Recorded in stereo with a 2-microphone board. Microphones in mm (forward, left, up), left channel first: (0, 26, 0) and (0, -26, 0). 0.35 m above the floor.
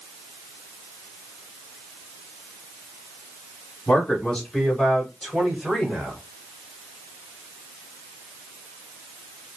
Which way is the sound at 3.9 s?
20° left (ahead or behind).